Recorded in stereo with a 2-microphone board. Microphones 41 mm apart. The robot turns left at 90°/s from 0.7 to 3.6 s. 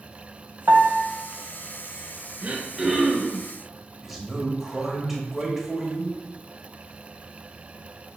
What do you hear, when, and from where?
0.7 s a piano: 60° right (ahead or behind), 0.5 m; by 1.0 s 50° right (ahead or behind), 0.5 m
2.4 s throat clearing: 135° right, 1.3 m; by 3.5 s 135° left, 1.3 m
4.0 s a man speaking: 5° right (ahead or behind), 1.0 m